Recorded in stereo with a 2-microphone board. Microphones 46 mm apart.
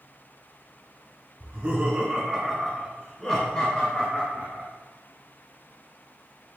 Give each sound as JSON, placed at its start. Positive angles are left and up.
{"t": 1.4, "sound": "laughter", "side_deg": -35, "distance_m": 1.7}